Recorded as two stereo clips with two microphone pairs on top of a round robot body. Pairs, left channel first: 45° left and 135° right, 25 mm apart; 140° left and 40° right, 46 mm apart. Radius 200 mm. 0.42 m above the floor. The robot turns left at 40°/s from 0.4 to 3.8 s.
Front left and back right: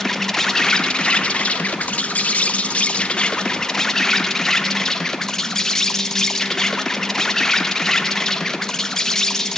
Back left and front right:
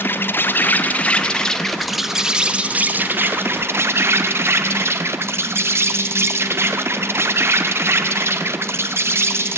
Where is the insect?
110° left, 1.5 m; by 9.6 s 25° right, 1.5 m.